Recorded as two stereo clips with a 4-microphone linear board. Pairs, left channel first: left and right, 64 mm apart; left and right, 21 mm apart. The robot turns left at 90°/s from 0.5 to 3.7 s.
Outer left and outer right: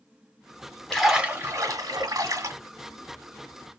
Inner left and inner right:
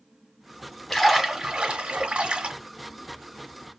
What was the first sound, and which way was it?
A splash, 10° left.